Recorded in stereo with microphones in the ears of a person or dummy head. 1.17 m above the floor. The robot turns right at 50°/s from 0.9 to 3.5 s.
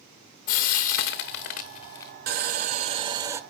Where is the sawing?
75° right, 0.7 m; by 3.4 s 20° right, 0.7 m.